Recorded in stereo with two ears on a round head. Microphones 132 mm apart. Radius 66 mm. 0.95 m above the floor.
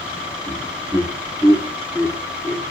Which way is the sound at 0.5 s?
20° right (ahead or behind).